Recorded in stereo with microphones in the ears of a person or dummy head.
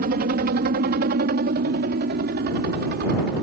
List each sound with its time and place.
0.0 s a helicopter: 55° right (ahead or behind); by 3.4 s 60° right (ahead or behind)